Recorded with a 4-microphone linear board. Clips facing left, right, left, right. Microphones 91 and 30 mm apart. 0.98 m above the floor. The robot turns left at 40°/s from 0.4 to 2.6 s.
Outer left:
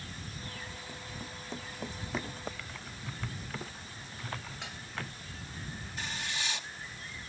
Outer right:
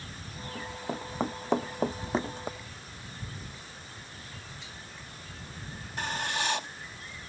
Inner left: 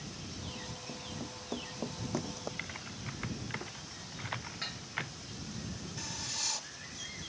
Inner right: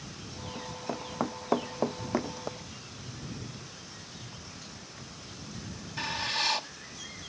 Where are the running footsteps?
50° right (ahead or behind); by 2.5 s 10° right (ahead or behind).